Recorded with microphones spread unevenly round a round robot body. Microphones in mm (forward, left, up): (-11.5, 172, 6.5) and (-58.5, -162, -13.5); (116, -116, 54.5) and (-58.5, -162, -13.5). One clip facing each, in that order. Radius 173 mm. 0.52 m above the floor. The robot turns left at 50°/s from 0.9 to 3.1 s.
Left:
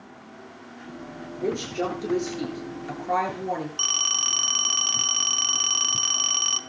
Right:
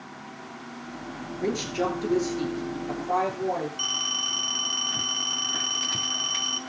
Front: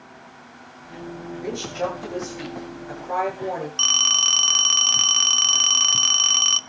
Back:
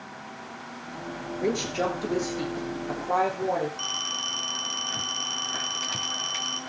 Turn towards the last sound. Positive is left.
turn(degrees=15)